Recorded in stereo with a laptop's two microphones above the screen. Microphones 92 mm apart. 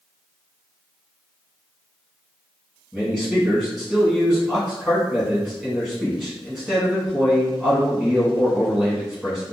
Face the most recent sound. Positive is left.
turn(degrees=-5)  # may be behind; listen again after turning